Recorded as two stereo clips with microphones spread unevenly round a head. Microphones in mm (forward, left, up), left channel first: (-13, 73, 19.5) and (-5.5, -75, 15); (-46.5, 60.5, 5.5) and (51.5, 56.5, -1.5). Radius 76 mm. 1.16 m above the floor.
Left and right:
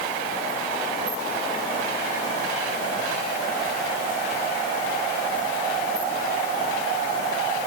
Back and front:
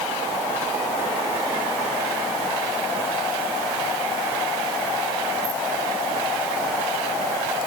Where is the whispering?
No whispering in this recording.